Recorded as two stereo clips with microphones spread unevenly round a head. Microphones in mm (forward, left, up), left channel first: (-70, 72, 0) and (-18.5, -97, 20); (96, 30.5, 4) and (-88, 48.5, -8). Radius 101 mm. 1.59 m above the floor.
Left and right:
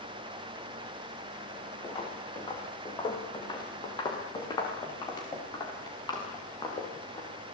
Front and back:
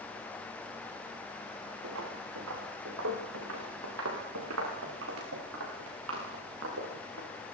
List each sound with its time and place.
1.8 s footsteps: 170° left, 7 m; by 7.3 s 175° left, 10 m